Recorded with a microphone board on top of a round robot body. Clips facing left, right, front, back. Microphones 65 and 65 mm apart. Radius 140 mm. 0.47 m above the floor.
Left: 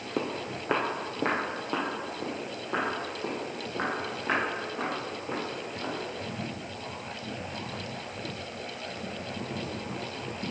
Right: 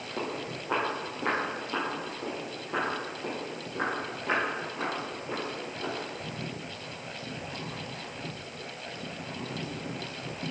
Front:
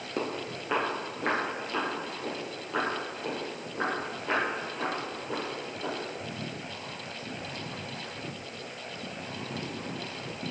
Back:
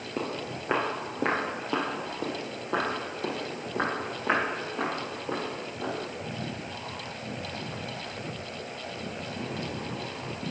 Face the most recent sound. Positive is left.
turn(degrees=165)